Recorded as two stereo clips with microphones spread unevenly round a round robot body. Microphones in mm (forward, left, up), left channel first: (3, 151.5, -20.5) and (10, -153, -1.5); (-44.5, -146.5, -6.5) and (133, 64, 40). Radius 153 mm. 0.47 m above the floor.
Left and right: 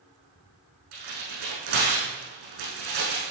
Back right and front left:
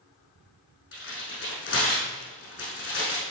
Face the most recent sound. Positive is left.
turn(degrees=-90)